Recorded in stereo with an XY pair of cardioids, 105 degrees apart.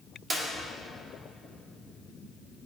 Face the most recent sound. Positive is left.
turn(degrees=-35)